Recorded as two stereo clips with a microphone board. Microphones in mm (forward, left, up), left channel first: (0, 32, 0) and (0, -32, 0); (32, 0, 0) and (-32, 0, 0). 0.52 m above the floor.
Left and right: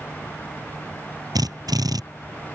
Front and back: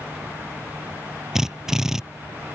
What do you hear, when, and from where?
1.4 s a drill: 100° right